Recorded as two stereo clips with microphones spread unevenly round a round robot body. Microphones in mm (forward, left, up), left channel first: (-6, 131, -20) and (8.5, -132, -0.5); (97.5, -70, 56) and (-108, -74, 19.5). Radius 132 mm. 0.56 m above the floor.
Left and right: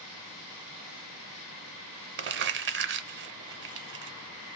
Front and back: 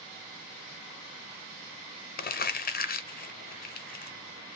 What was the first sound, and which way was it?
Crumpling, 40° right.